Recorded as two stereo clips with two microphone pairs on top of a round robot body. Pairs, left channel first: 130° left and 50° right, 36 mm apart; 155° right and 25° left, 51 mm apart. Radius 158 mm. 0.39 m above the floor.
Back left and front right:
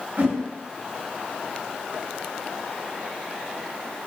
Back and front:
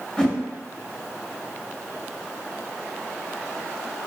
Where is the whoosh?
80° right, 0.9 m.